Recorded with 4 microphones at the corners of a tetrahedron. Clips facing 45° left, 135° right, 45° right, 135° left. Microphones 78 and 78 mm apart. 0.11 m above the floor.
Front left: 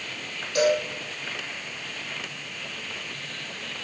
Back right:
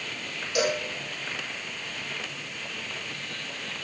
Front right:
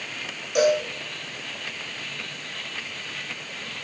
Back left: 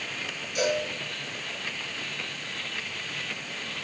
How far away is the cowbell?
About 4 m.